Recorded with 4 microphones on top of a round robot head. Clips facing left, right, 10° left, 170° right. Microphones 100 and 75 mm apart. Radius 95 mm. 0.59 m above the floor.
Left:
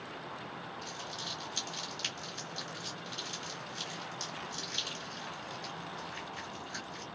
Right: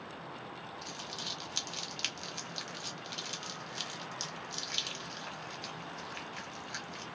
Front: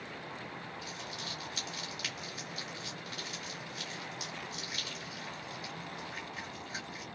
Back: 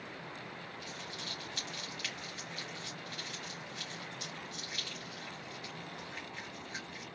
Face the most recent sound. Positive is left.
turn(degrees=-70)